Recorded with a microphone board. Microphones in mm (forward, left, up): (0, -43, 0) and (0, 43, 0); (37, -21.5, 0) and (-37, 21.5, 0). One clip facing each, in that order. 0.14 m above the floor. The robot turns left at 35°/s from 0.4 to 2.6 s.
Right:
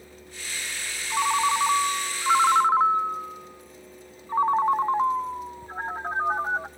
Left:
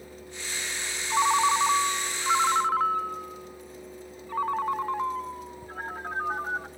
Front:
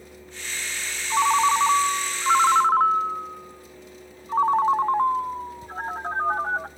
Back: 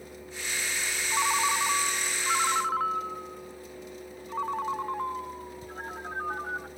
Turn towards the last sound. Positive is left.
turn(degrees=-40)